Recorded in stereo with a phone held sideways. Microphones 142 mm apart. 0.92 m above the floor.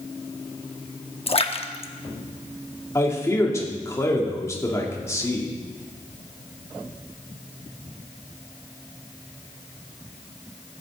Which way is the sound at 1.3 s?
45° left (ahead or behind).